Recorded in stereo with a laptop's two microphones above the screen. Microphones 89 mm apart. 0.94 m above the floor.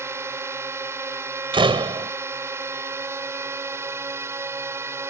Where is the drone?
30° right (ahead or behind).